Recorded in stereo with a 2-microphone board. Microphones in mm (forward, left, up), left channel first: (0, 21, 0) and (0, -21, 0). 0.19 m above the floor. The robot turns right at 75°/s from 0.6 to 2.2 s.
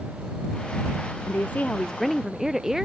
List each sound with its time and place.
1.3 s a woman speaking: 120° left; by 2.9 s 170° right